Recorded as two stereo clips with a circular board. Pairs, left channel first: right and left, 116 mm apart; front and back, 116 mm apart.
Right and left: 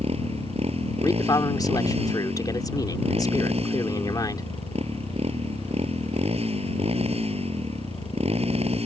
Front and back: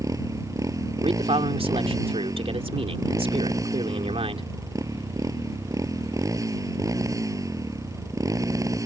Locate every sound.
0.0 s a motorcycle: 120° left
1.0 s a man speaking: 145° right